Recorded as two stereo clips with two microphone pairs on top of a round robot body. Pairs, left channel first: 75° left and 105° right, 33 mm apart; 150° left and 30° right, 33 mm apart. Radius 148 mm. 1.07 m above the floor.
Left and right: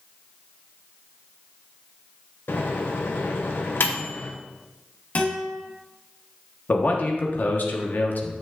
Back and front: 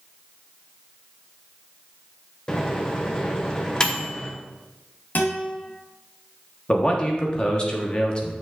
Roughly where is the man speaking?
Left.